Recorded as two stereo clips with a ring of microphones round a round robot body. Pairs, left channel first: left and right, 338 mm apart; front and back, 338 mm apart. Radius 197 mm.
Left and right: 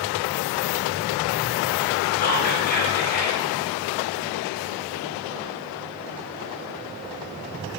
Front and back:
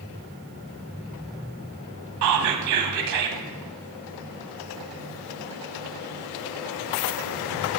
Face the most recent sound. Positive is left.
turn(degrees=150)